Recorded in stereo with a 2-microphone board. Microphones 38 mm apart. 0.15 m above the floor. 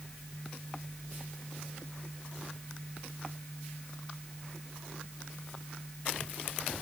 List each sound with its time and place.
Only background noise.